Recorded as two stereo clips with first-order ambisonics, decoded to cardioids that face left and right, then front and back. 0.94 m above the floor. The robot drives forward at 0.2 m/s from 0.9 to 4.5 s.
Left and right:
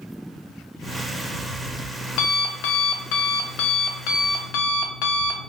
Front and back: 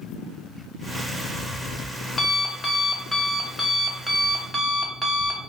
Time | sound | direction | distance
0.8 | an alarm clock | 60° left | 1.0 m